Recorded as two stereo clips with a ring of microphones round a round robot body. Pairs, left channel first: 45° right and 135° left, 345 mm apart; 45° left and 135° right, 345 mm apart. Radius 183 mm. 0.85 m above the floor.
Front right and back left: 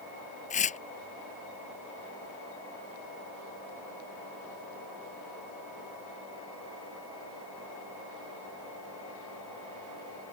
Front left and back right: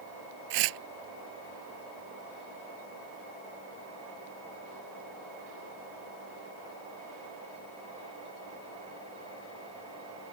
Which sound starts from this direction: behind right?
Tearing paper, at 0.5 s.